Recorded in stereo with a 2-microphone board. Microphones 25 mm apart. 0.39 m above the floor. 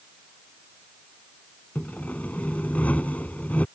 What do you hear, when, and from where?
1.8 s sawing: 70° left (ahead or behind)